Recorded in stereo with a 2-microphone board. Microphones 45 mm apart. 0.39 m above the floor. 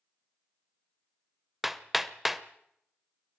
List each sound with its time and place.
1.6 s hammering: 5° right (ahead or behind), 1.0 m